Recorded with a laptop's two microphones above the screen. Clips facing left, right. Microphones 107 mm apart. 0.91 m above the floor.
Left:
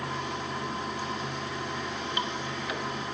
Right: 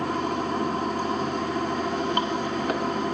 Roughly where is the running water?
Right.